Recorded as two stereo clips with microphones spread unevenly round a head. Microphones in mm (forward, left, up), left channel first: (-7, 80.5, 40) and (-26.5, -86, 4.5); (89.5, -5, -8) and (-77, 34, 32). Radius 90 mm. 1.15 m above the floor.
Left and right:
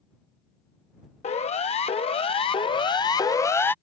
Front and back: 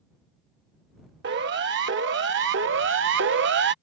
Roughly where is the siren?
Behind left.